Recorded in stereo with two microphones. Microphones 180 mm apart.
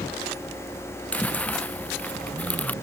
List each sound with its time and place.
1.1 s chewing: 10° left (ahead or behind)